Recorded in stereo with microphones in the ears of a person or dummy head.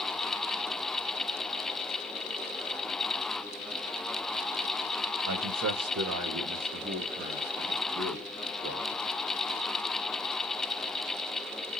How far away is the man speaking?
About 0.9 m.